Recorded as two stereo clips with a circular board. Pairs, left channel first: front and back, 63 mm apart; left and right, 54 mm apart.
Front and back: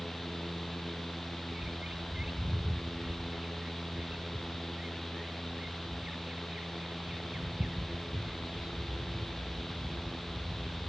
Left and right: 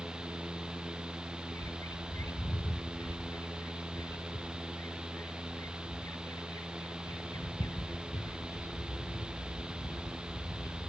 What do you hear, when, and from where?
1.5 s a bird: 105° left, 0.7 m